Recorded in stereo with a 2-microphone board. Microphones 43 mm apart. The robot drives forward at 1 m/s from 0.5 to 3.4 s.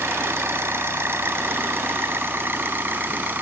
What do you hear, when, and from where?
0.0 s an engine running: 75° right (ahead or behind); by 3.4 s 50° right (ahead or behind)